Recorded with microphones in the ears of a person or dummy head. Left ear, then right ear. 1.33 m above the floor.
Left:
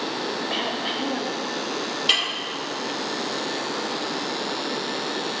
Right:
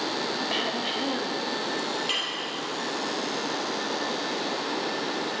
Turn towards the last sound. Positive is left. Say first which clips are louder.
# left 10 dB
turn(degrees=35)  # may be behind; listen again after turning